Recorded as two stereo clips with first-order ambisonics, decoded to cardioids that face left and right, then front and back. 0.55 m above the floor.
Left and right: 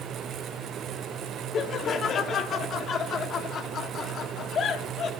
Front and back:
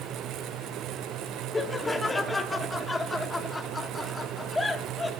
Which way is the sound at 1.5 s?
70° left.